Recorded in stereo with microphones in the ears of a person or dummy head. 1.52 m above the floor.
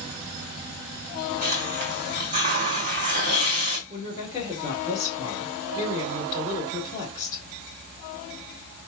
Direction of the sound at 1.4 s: 45° right (ahead or behind).